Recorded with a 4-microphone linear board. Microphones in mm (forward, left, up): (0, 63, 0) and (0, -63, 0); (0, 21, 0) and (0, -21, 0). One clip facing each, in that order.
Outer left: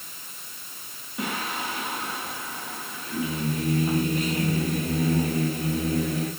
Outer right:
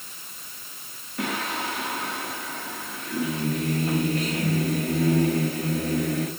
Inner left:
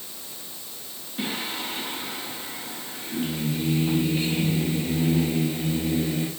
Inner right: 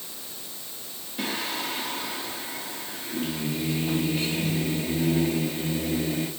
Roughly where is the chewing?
No chewing in this recording.